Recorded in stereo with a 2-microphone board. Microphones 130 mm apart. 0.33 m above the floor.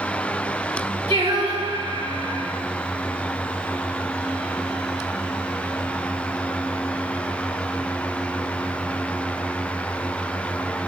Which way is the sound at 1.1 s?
55° right (ahead or behind).